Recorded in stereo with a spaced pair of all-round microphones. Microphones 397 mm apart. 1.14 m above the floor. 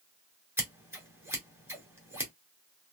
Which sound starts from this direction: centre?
Scissors, at 0.6 s.